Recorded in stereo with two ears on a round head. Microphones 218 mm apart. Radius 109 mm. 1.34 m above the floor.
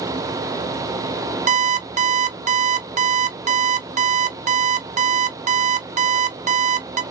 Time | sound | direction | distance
1.5 | an alarm clock | 30° right (ahead or behind) | 0.5 m